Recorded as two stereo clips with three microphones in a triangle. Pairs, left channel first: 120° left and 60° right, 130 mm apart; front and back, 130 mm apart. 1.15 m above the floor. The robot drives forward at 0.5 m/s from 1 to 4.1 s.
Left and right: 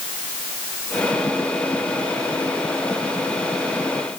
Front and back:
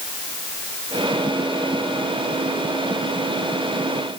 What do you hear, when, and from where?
Only background noise.